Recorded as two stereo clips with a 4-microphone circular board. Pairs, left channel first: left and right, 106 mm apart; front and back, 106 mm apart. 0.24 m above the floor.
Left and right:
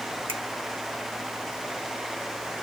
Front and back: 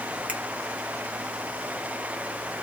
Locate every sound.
0.3 s a finger snap: 105° right, 1.6 m